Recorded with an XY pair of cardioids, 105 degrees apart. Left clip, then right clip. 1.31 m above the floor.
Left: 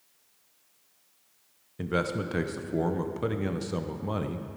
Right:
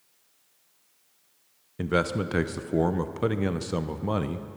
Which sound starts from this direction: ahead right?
A man speaking, at 1.8 s.